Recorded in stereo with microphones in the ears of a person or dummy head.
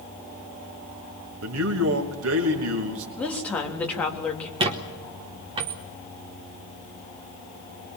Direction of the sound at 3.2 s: 5° left (ahead or behind).